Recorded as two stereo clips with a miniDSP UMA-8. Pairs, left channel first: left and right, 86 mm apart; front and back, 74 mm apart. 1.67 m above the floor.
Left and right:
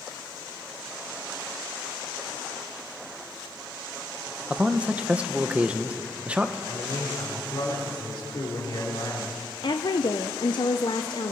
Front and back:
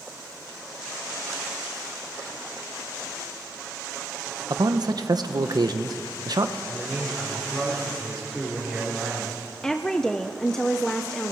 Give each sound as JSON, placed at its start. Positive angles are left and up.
{"t": 4.5, "sound": "a man speaking", "azimuth_deg": -165, "distance_m": 1.2}
{"t": 6.7, "sound": "a man speaking", "azimuth_deg": 90, "distance_m": 5.0}
{"t": 9.6, "sound": "a woman speaking", "azimuth_deg": 80, "distance_m": 0.8}